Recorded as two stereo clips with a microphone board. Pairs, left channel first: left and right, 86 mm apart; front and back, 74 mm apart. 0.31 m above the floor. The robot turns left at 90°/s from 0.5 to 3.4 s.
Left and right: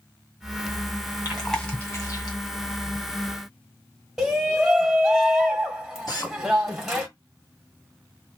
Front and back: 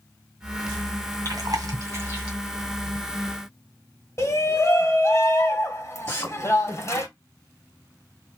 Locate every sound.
1.2 s chewing: 155° right, 2 m; by 2.4 s 105° left, 2 m
4.2 s a shout: 5° right, 1.4 m
6.1 s a drill: 50° left, 3 m